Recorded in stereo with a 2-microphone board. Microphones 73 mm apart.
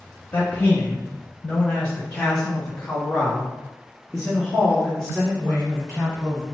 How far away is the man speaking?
About 1.0 m.